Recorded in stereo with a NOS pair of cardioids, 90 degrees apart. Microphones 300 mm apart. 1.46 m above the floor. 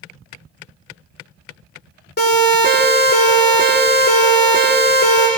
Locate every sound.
2.2 s a siren: 35° left, 7 m